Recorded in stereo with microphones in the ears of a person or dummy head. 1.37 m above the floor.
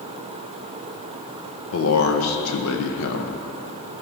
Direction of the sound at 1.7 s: 70° left (ahead or behind).